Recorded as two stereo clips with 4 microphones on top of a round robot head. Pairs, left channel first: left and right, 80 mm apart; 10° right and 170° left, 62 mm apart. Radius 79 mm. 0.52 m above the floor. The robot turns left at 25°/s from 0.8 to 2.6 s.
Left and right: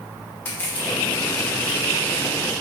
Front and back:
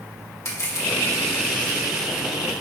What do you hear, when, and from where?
0.5 s crushing: 20° left, 2.5 m; by 1.8 s 5° right, 2.5 m